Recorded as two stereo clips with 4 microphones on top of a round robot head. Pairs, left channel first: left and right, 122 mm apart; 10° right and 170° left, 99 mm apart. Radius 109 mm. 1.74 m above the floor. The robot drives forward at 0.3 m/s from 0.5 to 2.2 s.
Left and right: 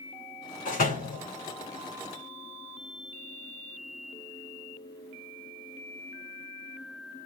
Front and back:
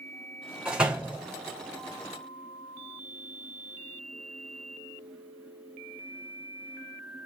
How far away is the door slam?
About 6 m.